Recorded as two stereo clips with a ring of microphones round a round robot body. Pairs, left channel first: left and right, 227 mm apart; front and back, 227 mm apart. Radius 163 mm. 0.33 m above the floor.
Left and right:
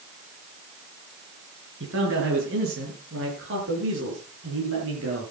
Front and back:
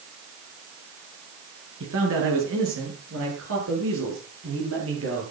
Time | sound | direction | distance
1.8 | a man speaking | 135° right | 5.5 m